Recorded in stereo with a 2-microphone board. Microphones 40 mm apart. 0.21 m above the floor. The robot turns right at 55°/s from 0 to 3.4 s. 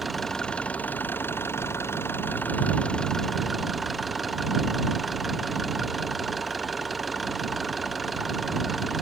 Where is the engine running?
5° right; by 9.0 s straight behind.